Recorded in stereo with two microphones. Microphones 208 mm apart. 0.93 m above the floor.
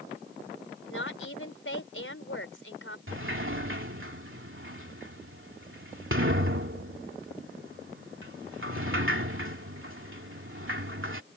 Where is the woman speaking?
75° left (ahead or behind).